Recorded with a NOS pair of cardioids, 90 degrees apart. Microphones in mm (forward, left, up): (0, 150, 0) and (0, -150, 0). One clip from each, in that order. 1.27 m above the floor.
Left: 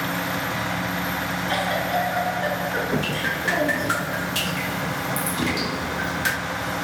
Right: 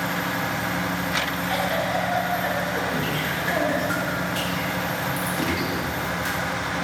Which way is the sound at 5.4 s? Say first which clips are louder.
Even; 20° left.